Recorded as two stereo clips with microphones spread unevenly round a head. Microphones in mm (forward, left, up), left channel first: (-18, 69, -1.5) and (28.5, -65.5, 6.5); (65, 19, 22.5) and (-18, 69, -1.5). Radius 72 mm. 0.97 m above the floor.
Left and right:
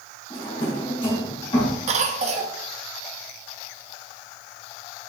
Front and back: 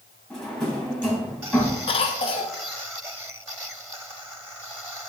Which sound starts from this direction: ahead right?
A cough, at 1.9 s.